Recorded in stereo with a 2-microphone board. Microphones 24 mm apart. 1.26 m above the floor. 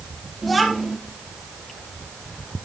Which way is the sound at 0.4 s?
Centre (ahead or behind).